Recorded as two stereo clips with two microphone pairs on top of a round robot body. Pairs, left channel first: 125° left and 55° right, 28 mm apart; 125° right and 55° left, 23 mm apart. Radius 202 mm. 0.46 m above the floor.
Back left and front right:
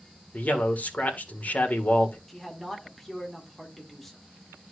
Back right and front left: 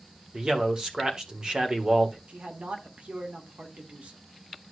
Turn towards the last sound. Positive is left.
turn(degrees=45)